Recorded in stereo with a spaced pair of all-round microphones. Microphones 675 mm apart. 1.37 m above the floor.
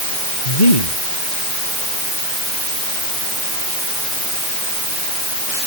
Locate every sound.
0.5 s a man speaking: 75° left (ahead or behind)